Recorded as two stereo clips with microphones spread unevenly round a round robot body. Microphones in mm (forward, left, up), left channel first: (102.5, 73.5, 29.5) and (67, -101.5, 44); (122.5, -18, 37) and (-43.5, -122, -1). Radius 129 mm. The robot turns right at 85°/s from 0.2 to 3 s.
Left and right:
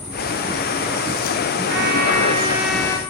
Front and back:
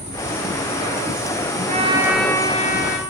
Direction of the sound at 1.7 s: 100° right.